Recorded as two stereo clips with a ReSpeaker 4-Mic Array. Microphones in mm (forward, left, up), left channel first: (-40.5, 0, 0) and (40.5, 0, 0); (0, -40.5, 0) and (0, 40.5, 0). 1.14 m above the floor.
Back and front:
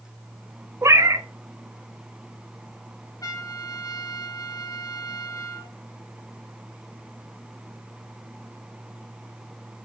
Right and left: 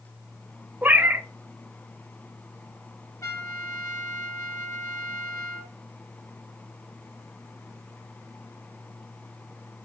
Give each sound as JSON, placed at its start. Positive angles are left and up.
{"t": 0.8, "sound": "a cat meowing", "azimuth_deg": 30, "distance_m": 0.6}
{"t": 3.2, "sound": "a trumpet", "azimuth_deg": -140, "distance_m": 1.1}